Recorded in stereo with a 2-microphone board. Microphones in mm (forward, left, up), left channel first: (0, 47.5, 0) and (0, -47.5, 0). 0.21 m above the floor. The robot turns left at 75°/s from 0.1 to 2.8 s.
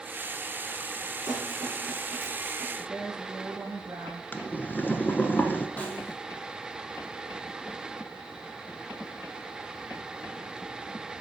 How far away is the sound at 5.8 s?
About 2 m.